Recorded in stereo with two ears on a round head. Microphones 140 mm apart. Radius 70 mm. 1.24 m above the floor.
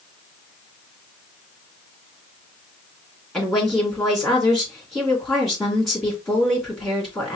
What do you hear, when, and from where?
3.3 s a woman speaking: centre (ahead or behind), 3 m